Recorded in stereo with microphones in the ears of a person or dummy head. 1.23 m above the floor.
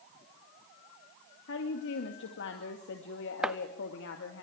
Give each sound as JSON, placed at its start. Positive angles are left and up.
{"t": 1.5, "sound": "a woman speaking", "side_deg": 70, "distance_m": 1.8}
{"t": 3.4, "sound": "chopping", "side_deg": -5, "distance_m": 0.5}